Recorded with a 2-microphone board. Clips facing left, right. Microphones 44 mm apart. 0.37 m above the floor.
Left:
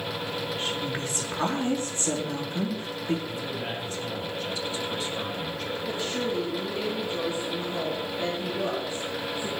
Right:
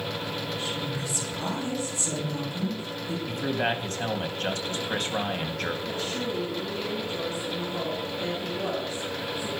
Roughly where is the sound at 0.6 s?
Left.